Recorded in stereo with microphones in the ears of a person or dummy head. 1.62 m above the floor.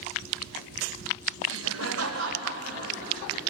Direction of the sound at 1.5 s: 75° right (ahead or behind).